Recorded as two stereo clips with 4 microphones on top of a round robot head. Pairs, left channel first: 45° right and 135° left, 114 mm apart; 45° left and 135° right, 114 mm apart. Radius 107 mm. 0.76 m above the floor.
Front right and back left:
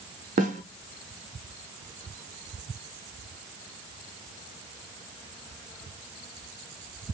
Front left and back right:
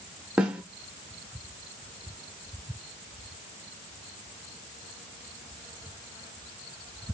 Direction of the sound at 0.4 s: 140° left.